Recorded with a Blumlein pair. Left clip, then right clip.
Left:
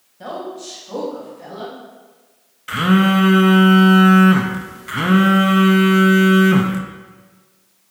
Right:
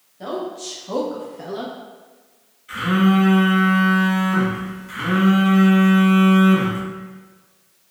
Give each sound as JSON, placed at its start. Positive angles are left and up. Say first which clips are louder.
{"t": 0.2, "sound": "a woman speaking", "louder": "right 1 dB", "azimuth_deg": 0, "distance_m": 1.3}
{"t": 2.7, "sound": "a phone buzzing", "louder": "left 3 dB", "azimuth_deg": 45, "distance_m": 0.5}